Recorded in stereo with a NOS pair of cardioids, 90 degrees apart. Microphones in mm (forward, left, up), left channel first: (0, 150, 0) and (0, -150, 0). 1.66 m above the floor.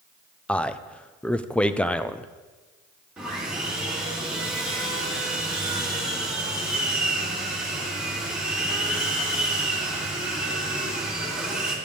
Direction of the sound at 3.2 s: 5° right.